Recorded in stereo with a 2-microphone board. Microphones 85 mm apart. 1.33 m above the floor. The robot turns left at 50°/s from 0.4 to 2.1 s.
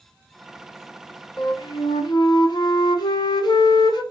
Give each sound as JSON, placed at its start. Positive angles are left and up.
{"t": 1.4, "sound": "a flute", "azimuth_deg": 100, "distance_m": 0.6}